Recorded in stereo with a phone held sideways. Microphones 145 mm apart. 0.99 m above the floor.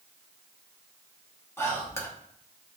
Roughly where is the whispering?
Centre.